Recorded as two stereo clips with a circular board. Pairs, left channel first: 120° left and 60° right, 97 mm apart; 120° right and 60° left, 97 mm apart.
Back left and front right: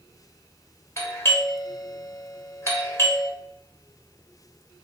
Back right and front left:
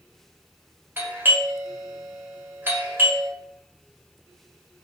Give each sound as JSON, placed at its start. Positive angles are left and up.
{"t": 1.0, "sound": "a doorbell", "azimuth_deg": 95, "distance_m": 1.4}